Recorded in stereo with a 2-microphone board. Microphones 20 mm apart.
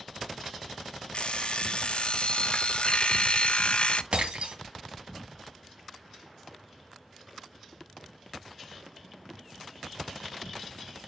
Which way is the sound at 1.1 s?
60° left (ahead or behind).